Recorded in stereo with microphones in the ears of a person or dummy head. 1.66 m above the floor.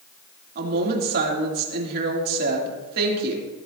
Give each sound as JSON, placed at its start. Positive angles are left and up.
{"t": 0.6, "sound": "a woman speaking", "side_deg": -50, "distance_m": 3.0}